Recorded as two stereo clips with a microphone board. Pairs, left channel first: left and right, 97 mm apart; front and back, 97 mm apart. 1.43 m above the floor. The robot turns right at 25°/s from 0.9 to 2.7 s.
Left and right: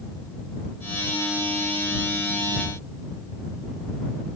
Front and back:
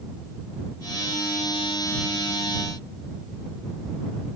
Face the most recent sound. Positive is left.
No sound to turn to.